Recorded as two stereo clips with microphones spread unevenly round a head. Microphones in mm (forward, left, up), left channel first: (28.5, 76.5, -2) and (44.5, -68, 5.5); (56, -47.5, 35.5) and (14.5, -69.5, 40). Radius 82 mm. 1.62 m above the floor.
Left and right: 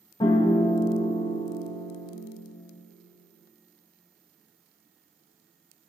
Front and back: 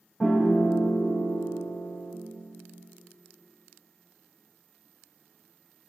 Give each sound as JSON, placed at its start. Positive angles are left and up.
{"t": 0.2, "sound": "a piano", "azimuth_deg": 115, "distance_m": 0.9}